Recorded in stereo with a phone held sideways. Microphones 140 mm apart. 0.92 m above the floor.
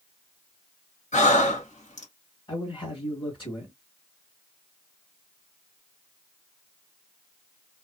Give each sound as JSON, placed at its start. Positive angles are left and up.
{"t": 1.1, "sound": "breathing", "side_deg": 65, "distance_m": 1.6}
{"t": 2.5, "sound": "a man speaking", "side_deg": 40, "distance_m": 1.7}